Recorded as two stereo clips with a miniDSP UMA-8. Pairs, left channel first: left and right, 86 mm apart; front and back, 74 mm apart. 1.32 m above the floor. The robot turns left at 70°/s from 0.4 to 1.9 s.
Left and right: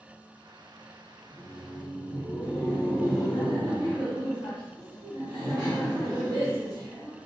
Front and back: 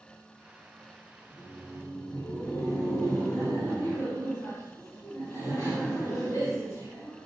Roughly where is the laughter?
Ahead.